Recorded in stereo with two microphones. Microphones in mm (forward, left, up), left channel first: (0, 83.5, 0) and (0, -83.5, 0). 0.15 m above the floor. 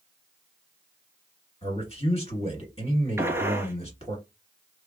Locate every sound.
1.6 s a man speaking: 35° left (ahead or behind), 1.6 m
3.2 s a gunshot: 15° right (ahead or behind), 0.6 m